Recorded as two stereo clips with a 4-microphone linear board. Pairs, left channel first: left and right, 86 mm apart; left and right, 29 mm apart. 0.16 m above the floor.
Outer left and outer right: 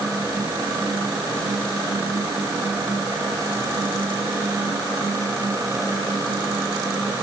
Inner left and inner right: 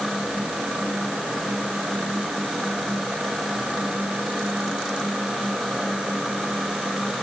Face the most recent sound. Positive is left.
No sound to turn to.